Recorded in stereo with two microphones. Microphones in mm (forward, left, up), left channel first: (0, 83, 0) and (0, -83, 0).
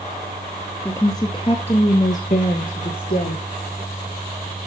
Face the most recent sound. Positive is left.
turn(degrees=70)  # may be behind; listen again after turning